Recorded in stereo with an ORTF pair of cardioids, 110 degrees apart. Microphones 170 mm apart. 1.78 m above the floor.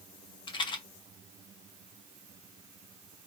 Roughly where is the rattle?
Ahead left.